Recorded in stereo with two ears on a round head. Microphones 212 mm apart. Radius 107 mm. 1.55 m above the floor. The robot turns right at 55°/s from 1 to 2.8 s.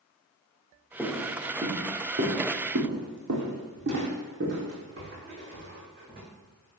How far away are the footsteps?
About 3.5 m.